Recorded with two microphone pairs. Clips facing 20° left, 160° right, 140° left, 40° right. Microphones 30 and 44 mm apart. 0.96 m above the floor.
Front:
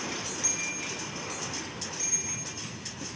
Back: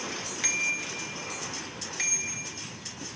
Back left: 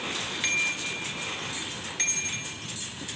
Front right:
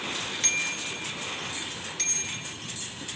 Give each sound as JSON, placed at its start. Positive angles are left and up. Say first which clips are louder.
{"t": 0.4, "sound": "a bicycle bell", "louder": "back 10 dB, back left 4 dB", "azimuth_deg": -150, "distance_m": 3.5}